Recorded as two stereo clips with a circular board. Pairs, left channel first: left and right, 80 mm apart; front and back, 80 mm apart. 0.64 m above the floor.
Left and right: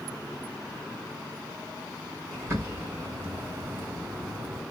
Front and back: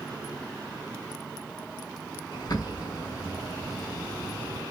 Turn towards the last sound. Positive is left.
turn(degrees=-35)